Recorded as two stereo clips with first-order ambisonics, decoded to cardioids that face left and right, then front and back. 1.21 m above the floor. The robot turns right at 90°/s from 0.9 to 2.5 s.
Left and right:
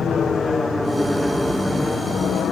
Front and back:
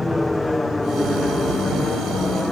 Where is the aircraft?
70° left; by 2.5 s 75° left.